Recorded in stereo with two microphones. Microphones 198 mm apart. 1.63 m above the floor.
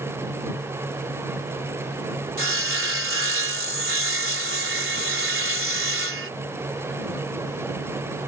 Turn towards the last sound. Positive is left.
turn(degrees=-85)